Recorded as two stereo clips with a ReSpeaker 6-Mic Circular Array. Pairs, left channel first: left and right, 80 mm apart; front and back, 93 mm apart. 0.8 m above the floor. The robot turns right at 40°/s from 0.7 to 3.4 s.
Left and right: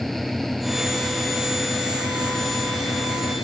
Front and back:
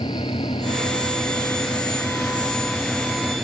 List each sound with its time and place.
0.0 s an engine running: straight ahead; by 3.4 s 105° left